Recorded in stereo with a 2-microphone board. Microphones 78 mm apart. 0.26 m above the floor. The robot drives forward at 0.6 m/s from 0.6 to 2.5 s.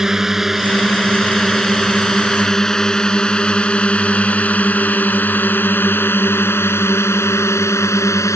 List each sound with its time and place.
0.0 s a drone: 5° right (ahead or behind); by 8.4 s 40° left (ahead or behind)